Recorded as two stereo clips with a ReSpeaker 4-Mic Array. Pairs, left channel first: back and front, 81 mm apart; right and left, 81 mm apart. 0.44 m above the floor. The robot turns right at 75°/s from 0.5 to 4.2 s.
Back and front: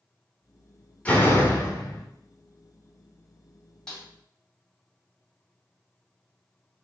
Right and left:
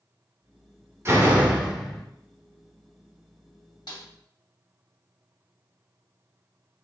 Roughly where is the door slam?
Behind left.